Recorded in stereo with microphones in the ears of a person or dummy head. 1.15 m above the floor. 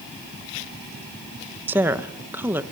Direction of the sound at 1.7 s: 15° right (ahead or behind).